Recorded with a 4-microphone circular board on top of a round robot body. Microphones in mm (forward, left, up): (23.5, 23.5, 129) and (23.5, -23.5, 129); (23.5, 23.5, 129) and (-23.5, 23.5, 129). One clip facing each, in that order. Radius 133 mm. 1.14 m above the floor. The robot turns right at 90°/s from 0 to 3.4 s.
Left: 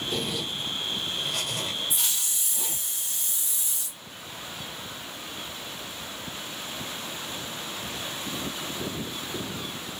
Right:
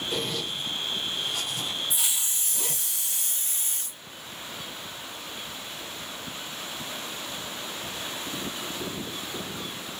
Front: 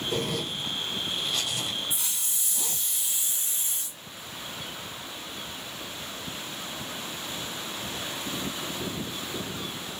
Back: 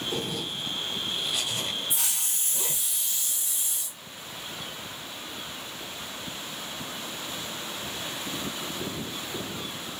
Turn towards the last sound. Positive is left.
turn(degrees=-45)